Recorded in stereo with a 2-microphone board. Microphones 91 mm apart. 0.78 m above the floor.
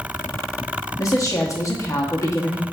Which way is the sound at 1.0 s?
35° left (ahead or behind).